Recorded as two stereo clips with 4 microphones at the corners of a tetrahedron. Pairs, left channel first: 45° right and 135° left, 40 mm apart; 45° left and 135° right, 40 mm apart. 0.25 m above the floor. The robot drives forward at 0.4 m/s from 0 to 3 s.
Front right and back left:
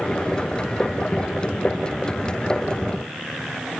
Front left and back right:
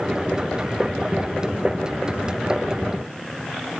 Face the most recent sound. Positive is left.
No sound to turn to.